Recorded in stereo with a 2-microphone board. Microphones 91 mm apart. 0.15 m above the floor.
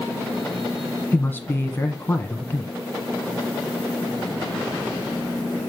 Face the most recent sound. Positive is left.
turn(degrees=20)  # may be behind; listen again after turning